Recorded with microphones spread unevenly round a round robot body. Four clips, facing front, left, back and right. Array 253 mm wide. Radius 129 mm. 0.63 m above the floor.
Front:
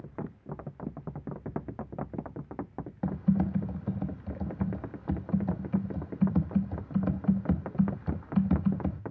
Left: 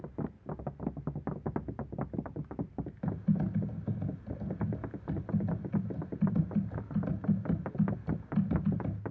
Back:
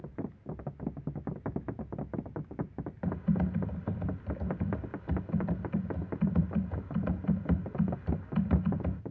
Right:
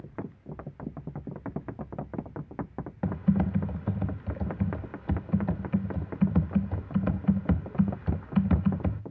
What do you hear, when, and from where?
3.0 s typing on a keyboard: 70° right, 1.0 m